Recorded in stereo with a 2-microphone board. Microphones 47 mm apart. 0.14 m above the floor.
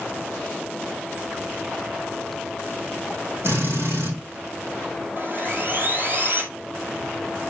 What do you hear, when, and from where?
3.4 s a drill: 50° right (ahead or behind), 5.5 m
5.2 s sawing: 45° right (ahead or behind), 1.8 m